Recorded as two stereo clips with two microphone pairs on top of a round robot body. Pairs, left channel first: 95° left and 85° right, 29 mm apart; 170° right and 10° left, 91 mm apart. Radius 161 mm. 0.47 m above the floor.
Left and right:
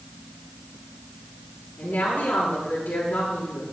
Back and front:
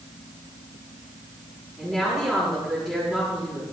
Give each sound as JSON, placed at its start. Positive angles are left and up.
{"t": 1.8, "sound": "a woman speaking", "azimuth_deg": 95, "distance_m": 6.0}